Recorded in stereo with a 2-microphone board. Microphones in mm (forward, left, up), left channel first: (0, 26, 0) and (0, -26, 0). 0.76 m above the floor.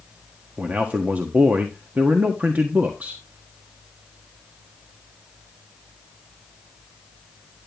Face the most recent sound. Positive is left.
turn(degrees=-35)  # may be behind; listen again after turning